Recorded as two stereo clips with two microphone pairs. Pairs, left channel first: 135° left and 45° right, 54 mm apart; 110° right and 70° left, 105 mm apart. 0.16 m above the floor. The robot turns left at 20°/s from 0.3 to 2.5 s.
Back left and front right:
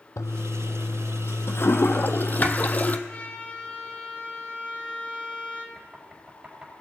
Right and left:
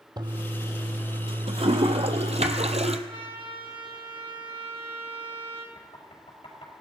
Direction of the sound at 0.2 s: 120° left.